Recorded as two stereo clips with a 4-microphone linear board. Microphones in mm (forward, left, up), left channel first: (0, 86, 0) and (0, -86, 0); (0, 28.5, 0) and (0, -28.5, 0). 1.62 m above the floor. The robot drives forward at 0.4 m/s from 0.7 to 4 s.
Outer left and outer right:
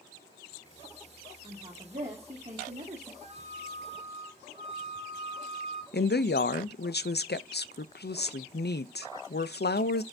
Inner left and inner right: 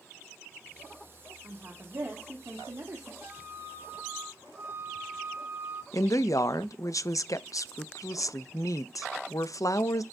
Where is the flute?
40° right (ahead or behind), 2.5 m.